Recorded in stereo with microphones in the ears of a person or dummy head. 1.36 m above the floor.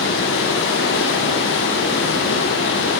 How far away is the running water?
About 0.7 m.